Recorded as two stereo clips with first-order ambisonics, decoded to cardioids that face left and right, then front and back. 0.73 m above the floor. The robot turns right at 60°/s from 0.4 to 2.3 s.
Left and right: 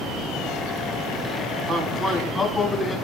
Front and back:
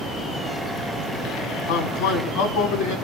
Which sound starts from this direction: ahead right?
A man speaking, at 1.7 s.